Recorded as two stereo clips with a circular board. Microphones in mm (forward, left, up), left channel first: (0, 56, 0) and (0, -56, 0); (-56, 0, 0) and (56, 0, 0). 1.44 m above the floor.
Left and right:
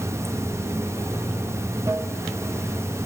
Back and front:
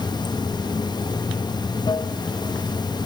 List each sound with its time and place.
0.0 s running water: 145° right, 0.9 m